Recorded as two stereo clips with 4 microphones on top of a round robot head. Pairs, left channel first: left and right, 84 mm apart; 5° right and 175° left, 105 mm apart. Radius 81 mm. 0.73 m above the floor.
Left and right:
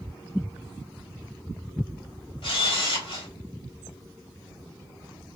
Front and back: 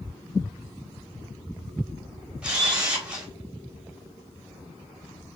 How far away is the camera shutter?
About 1.2 m.